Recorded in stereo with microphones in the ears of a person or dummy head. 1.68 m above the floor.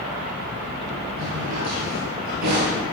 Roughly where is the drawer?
Right.